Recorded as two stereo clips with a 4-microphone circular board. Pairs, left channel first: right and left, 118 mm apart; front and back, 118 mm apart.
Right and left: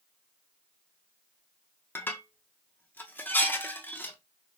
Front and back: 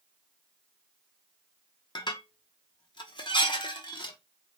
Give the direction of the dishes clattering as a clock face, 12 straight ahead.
1 o'clock.